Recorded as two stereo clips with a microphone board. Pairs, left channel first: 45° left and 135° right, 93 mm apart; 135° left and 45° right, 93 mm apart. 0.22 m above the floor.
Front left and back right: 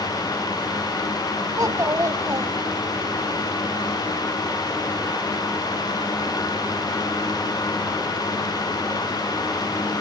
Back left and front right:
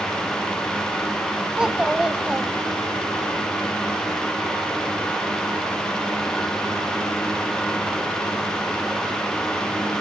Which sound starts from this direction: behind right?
A child speaking, at 1.6 s.